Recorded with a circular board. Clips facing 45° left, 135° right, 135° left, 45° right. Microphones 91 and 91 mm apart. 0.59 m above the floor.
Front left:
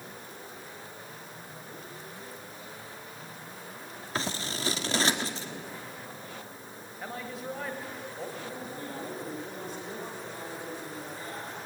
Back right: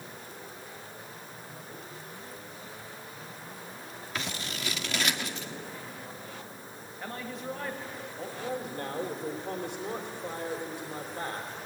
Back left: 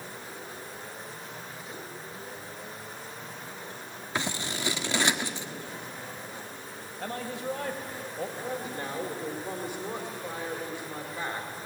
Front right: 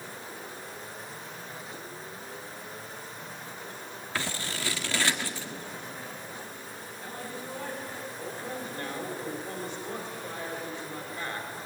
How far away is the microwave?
I don't hear a microwave.